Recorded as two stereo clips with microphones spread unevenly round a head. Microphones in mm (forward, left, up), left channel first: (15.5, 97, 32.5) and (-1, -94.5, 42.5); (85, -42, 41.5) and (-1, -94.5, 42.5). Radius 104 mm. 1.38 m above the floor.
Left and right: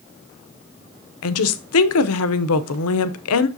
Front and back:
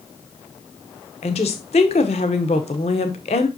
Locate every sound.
1.2 s a woman speaking: 80° left, 0.7 m